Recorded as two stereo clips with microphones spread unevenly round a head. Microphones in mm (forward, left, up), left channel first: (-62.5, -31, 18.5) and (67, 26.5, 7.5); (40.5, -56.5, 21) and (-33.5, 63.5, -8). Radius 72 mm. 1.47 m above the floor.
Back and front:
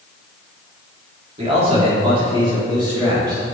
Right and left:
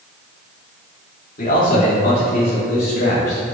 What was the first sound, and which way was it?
A man speaking, 25° right.